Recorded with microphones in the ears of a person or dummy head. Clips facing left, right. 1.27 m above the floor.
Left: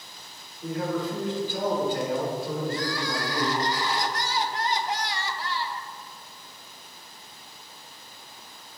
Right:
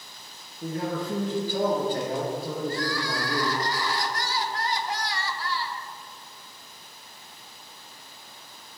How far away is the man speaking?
About 1.5 m.